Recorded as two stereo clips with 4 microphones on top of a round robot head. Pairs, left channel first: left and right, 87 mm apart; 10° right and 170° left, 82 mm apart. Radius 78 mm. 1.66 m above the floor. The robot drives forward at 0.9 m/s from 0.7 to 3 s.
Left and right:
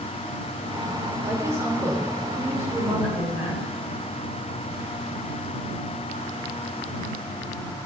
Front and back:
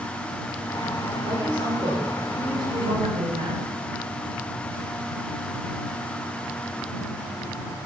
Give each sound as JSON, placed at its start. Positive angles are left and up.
{"t": 1.2, "sound": "a woman speaking", "azimuth_deg": -145, "distance_m": 6.0}